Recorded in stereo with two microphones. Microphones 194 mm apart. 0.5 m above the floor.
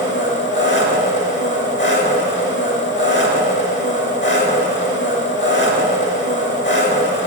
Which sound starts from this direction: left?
An engine running, at 0.0 s.